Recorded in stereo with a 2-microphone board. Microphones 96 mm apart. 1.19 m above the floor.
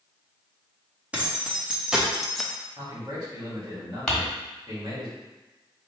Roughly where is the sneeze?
No sneeze in this recording.